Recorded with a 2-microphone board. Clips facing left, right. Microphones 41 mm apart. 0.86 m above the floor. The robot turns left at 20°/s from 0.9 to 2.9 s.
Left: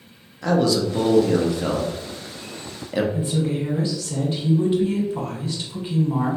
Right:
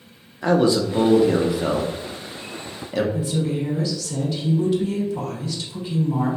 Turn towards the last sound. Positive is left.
turn(degrees=30)  # may be behind; listen again after turning